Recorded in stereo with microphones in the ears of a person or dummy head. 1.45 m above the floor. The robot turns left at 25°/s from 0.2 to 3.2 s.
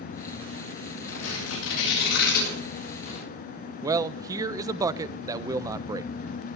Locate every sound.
1.1 s tearing paper: 90° left, 10 m; by 3.2 s 35° left (ahead or behind), 10 m
3.8 s a man speaking: 20° right (ahead or behind), 0.5 m